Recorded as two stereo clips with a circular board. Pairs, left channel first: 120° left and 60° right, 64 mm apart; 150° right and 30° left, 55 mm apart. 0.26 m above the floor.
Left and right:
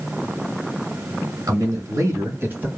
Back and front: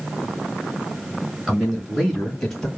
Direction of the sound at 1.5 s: 50° right.